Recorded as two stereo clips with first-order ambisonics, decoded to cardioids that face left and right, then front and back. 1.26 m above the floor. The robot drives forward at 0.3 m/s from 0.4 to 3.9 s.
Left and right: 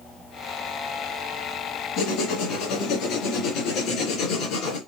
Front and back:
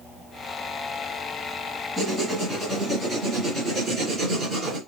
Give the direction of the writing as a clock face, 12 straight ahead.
8 o'clock.